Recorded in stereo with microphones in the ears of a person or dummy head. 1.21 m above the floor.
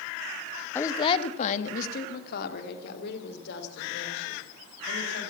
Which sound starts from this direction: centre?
A woman speaking, at 0.8 s.